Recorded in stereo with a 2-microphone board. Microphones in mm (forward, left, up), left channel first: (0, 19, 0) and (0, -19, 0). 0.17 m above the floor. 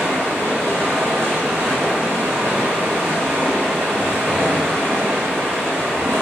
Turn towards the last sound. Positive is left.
turn(degrees=-70)  # may be behind; listen again after turning